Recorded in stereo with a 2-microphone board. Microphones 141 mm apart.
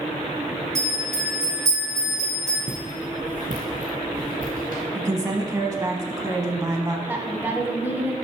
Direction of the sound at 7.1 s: 15° right (ahead or behind).